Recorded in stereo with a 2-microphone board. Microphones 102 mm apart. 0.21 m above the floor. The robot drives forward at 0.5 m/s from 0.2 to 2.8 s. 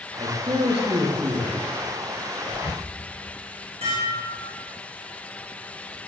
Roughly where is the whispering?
Left.